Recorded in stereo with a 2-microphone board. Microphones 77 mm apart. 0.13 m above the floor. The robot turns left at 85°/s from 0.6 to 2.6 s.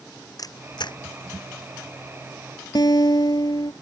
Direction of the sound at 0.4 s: 55° left (ahead or behind).